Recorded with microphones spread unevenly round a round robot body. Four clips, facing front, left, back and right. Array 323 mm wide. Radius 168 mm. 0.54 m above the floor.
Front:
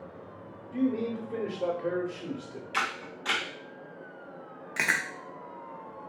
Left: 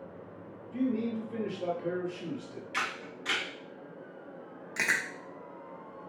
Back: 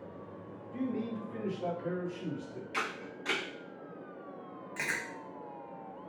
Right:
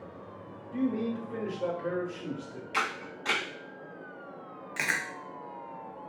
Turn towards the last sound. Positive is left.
turn(degrees=25)